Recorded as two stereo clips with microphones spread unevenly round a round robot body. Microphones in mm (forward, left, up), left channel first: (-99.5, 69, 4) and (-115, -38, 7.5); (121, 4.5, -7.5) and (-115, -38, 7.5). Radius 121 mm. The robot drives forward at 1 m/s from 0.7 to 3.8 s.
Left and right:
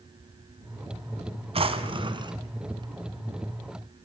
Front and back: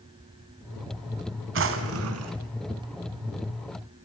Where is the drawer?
130° right, 1.6 m; by 2.4 s 145° right, 2.5 m.